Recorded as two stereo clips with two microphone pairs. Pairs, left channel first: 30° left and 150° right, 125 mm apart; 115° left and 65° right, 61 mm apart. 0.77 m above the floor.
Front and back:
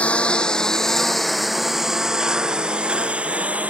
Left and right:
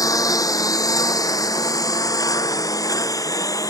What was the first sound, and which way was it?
A lawn mower, 105° left.